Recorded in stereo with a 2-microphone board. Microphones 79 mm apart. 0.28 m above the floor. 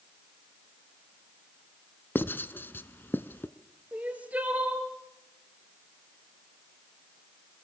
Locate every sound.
2.1 s writing: 25° left (ahead or behind), 0.8 m
3.9 s crying: 15° right (ahead or behind), 3.5 m